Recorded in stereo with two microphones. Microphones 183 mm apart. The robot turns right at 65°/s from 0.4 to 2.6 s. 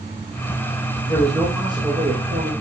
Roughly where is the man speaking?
Behind.